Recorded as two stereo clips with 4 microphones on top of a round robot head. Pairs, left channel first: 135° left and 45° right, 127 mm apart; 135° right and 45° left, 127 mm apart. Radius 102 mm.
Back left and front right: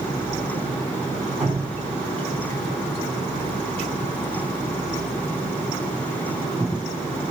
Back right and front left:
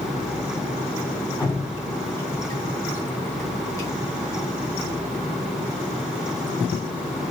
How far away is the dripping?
About 2 m.